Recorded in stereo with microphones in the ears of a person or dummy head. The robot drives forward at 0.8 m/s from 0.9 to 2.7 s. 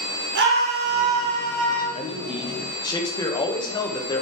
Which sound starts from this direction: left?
A man speaking, at 1.9 s.